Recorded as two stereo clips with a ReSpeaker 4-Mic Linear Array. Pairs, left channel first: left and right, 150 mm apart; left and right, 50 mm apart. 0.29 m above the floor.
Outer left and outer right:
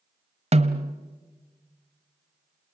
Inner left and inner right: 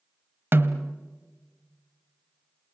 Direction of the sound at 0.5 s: 45° right (ahead or behind).